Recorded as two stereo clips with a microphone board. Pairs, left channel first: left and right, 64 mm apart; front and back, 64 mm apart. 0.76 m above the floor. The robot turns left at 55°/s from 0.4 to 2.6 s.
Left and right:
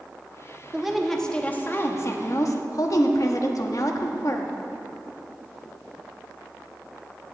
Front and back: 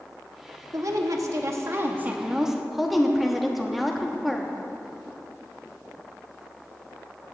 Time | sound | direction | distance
0.7 | a woman speaking | 165° right | 1.0 m